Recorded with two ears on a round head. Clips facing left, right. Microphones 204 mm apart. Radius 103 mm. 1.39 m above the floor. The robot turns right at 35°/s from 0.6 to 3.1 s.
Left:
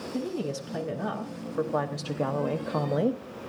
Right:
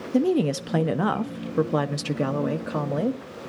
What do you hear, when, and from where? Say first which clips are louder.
0.1 s a woman speaking: right 11 dB; 85° right, 0.5 m; by 3.2 s 5° left, 0.5 m